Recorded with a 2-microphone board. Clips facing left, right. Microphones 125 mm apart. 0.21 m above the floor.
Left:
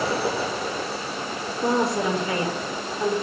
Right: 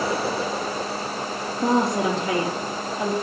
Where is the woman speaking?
65° right (ahead or behind), 4.5 m.